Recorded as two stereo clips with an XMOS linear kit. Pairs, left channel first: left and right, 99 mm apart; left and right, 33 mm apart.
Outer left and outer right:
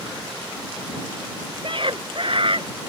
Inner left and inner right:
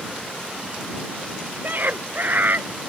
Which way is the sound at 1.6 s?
60° right (ahead or behind).